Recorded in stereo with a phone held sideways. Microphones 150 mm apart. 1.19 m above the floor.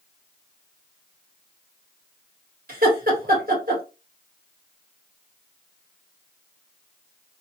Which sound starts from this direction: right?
Laughter, at 2.7 s.